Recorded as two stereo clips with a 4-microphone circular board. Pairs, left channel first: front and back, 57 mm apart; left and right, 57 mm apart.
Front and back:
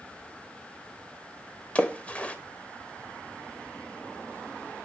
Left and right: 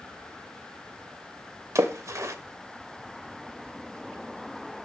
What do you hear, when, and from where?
1.8 s a splash: 65° right, 0.7 m